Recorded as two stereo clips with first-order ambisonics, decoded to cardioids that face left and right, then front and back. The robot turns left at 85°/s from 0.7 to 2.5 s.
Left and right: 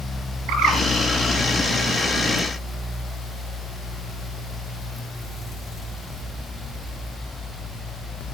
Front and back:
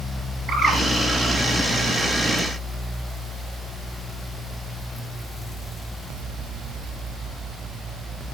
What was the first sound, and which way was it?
A bird, 120° right.